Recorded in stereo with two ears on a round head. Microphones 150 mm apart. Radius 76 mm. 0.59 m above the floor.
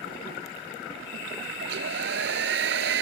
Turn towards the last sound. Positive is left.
turn(degrees=-65)  # may be behind; listen again after turning